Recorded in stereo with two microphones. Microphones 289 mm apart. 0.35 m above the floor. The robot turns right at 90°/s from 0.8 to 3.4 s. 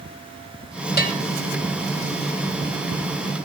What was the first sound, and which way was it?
A bell, 35° left (ahead or behind).